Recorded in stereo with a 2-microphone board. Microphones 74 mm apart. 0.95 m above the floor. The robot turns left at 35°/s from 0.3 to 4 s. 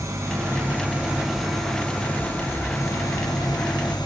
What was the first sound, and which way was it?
An engine running, 140° right.